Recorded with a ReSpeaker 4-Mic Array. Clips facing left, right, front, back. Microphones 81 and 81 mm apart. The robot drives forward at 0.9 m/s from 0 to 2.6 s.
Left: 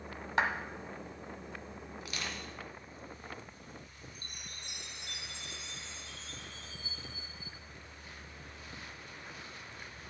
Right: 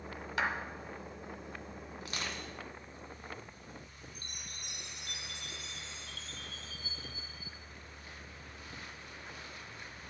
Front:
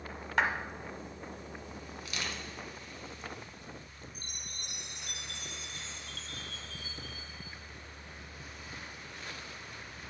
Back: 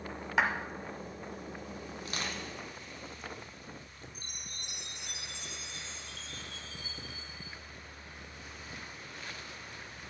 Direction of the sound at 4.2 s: 30° left.